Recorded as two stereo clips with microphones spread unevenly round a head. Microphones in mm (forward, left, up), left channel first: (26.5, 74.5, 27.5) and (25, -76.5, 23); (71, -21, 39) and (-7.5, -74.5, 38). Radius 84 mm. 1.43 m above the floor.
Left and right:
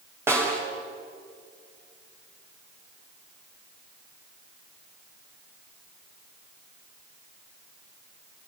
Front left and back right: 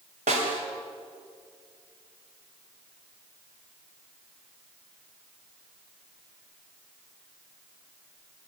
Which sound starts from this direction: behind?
A snare drum, at 0.3 s.